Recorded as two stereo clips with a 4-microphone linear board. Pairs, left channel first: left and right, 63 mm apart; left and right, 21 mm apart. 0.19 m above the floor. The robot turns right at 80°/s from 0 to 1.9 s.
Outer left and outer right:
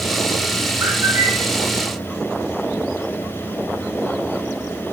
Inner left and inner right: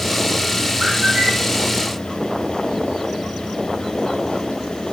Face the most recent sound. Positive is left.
turn(degrees=5)